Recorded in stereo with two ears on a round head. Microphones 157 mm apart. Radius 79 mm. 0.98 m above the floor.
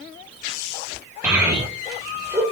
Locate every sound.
1.2 s a child speaking: 5° right (ahead or behind), 1.9 m; by 2.4 s 15° right (ahead or behind), 0.9 m